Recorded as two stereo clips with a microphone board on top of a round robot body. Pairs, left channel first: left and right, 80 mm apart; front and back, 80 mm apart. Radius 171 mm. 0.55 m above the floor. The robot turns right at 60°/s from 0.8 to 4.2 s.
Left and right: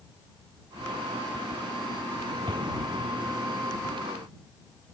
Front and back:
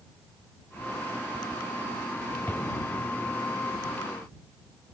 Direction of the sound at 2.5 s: 70° right.